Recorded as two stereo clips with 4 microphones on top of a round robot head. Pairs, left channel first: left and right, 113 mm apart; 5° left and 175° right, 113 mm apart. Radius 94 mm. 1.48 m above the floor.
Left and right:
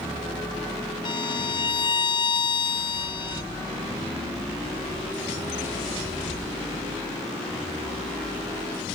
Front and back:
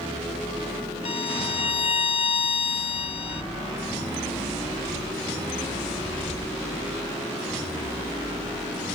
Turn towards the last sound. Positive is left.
turn(degrees=40)